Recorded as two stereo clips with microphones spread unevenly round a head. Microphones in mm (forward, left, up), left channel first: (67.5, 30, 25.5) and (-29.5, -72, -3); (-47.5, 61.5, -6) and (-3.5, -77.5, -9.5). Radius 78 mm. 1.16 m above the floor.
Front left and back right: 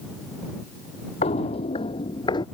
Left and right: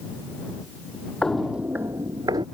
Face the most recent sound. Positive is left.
turn(degrees=-5)